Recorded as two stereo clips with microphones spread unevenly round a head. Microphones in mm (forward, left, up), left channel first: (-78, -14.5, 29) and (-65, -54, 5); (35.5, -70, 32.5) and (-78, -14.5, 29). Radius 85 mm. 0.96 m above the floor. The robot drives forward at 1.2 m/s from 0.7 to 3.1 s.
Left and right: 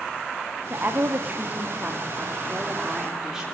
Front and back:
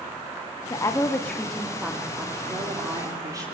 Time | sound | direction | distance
0.7 | a woman speaking | 85° right | 2 m